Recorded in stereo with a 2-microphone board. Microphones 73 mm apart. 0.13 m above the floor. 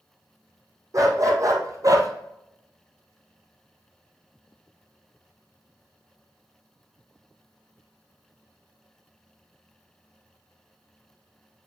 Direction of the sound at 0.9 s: 50° right (ahead or behind).